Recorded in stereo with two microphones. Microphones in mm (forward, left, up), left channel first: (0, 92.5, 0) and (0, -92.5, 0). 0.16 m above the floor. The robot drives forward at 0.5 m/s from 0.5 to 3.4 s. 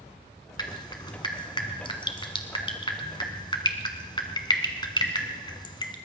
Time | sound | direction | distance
0.6 | dripping | 20° left (ahead or behind) | 1.6 m